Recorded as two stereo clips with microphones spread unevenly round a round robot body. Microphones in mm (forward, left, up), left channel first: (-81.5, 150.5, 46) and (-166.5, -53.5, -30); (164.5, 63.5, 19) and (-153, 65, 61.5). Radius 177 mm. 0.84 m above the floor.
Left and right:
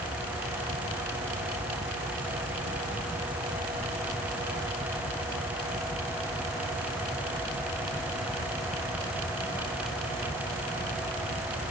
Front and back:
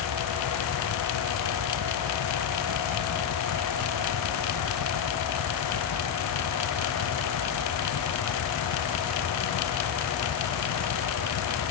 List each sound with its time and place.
Only background noise.